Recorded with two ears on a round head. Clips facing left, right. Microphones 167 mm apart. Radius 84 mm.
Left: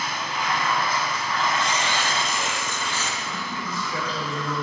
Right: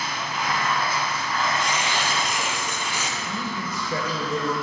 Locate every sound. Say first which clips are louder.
0.0 s running water: even; 5° right (ahead or behind), 2.5 m
1.6 s tearing paper: even; 10° right (ahead or behind), 0.7 m
3.2 s a man speaking: right 2 dB; 35° right (ahead or behind), 1.7 m